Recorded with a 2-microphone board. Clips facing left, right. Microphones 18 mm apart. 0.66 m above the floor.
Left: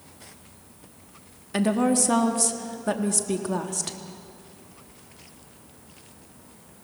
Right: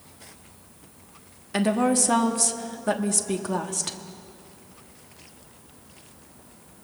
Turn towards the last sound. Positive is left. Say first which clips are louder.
# even
turn(degrees=-10)  # may be behind; listen again after turning